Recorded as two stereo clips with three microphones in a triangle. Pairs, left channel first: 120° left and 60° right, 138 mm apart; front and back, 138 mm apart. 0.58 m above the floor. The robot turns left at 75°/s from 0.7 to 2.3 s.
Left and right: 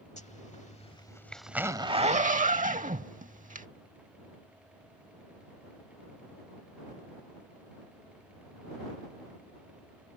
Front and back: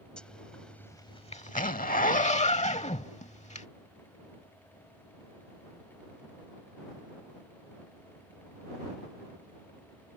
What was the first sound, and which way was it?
A zipper, 85° left.